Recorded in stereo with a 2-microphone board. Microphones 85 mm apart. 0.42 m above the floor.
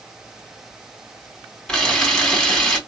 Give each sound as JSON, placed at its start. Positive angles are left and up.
{"t": 1.7, "sound": "a camera shutter", "side_deg": 5, "distance_m": 2.0}